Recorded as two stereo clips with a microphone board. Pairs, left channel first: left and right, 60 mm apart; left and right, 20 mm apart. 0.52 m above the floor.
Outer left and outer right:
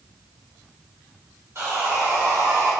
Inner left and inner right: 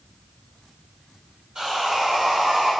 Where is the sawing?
45° right (ahead or behind), 1.3 m.